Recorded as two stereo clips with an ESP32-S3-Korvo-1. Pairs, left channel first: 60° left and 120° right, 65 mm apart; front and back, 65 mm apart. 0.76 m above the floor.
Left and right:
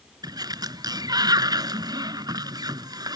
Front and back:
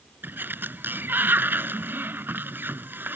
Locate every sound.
0.2 s a sliding door: 120° right